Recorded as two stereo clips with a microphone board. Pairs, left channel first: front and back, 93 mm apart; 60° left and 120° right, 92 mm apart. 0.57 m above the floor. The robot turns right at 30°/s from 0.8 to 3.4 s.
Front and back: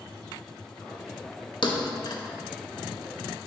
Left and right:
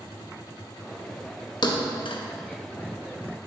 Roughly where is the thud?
Ahead left.